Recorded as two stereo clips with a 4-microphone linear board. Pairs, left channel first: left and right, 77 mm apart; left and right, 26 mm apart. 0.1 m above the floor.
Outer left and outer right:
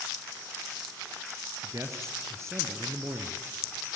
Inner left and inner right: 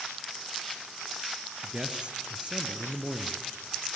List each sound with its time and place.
1.6 s a man speaking: 40° right (ahead or behind), 1.9 m